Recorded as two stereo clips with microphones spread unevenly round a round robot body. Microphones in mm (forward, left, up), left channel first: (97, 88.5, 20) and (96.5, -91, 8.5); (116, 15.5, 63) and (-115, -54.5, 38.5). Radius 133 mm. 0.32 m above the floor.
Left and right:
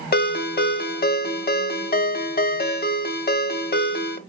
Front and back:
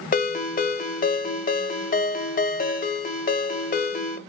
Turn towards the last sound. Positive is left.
turn(degrees=70)